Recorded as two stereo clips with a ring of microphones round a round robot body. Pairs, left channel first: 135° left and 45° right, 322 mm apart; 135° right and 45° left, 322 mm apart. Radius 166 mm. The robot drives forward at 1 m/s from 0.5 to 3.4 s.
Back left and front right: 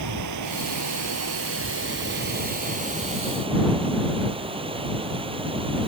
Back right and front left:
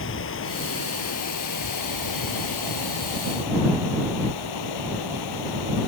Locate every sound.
0.0 s running water: 80° right; by 5.9 s 120° right